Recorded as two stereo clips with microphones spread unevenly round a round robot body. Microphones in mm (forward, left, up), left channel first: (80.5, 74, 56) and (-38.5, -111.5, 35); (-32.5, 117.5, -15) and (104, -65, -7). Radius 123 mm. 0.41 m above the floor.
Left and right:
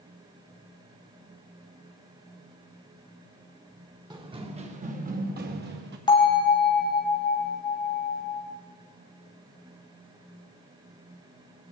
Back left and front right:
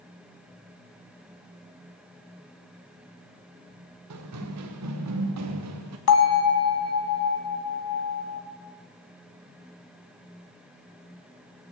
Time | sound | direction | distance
4.1 | running footsteps | 50° right | 2.5 m
6.1 | a bell | 130° left | 2 m